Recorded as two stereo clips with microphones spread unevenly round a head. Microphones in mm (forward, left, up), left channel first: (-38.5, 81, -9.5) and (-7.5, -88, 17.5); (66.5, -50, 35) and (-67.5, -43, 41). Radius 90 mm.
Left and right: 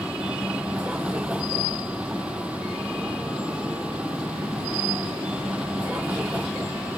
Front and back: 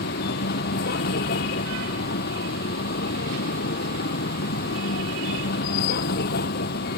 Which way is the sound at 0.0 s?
5° left.